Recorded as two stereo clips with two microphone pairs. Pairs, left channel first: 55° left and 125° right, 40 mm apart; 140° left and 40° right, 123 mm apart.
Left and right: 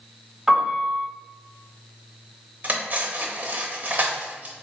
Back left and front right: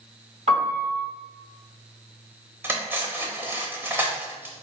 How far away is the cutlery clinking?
About 0.7 m.